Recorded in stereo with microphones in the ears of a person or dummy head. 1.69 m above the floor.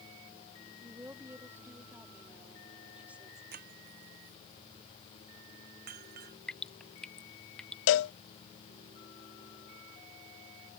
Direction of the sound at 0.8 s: 15° right (ahead or behind).